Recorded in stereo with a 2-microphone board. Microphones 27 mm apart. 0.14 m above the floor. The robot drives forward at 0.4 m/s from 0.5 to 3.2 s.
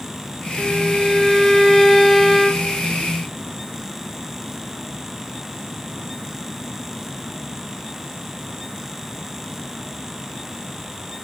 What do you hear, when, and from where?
0.6 s a violin: 5° left (ahead or behind), 1.6 m